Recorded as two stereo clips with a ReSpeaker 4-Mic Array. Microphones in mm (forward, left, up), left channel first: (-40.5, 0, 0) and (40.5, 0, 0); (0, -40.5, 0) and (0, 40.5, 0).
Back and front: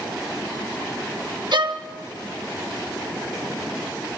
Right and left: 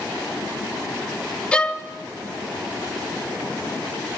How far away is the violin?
About 1.0 m.